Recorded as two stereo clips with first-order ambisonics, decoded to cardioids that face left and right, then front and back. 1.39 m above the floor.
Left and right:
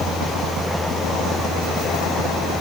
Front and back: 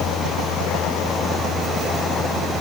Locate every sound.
Only background noise.